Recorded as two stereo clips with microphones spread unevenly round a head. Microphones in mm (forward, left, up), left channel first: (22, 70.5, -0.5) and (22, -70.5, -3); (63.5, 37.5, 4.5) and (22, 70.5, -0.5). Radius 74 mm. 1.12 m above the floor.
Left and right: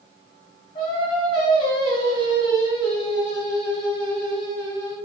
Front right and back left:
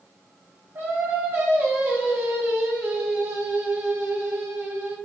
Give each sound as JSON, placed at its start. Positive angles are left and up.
{"t": 0.8, "sound": "singing", "azimuth_deg": 140, "distance_m": 0.8}